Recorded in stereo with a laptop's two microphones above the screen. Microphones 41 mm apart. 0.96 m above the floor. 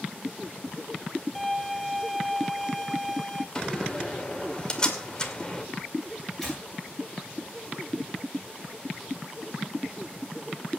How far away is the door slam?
About 2 m.